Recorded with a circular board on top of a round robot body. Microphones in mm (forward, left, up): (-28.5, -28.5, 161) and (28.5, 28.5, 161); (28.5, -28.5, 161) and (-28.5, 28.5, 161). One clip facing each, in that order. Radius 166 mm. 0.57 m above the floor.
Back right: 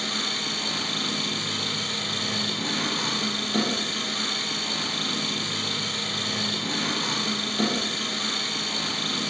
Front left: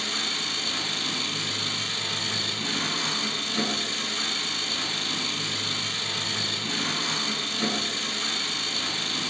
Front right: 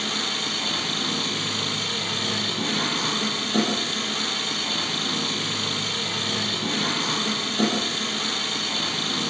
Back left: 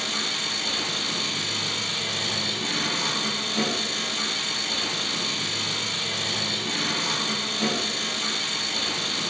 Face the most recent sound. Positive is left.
turn(degrees=-85)